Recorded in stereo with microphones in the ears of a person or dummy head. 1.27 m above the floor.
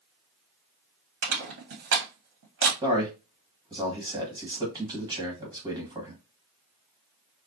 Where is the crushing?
70° right (ahead or behind), 1.6 m.